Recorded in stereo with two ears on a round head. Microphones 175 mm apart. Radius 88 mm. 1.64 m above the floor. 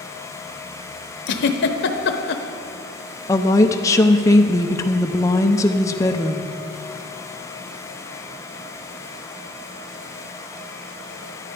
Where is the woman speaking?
15° left (ahead or behind), 0.6 m.